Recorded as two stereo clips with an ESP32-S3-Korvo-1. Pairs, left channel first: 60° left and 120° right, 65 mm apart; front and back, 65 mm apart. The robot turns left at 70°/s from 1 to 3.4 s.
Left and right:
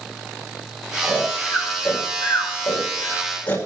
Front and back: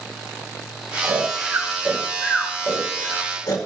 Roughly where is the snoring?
Behind left.